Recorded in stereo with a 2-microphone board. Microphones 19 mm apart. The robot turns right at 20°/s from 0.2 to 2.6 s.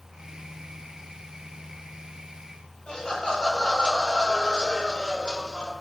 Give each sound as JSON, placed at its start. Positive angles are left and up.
{"t": 2.9, "sound": "laughter", "side_deg": 75, "distance_m": 3.0}